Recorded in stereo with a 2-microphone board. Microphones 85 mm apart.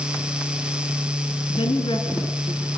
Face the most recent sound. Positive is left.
turn(degrees=80)